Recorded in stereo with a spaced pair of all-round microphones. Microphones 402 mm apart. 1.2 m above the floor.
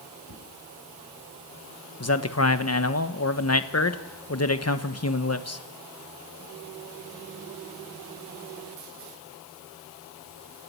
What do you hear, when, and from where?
0.3 s a whoosh: 80° left, 9.5 m
2.0 s a man speaking: 40° left (ahead or behind), 1.2 m